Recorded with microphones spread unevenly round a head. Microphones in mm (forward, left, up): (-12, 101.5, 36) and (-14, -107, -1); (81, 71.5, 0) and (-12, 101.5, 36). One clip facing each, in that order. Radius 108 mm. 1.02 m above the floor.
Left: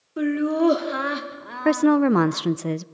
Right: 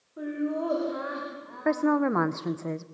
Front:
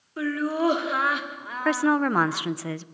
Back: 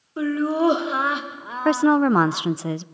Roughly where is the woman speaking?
Left.